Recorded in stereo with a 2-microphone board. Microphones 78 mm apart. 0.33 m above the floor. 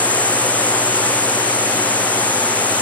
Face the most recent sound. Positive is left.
turn(degrees=20)  # may be behind; listen again after turning